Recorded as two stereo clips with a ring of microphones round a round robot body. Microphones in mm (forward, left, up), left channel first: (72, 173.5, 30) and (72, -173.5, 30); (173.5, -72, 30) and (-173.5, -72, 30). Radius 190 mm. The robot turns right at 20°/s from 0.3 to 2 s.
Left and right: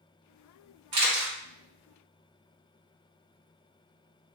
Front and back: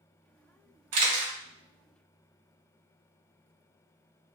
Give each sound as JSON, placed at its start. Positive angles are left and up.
{"t": 0.9, "sound": "a camera shutter", "azimuth_deg": -140, "distance_m": 0.9}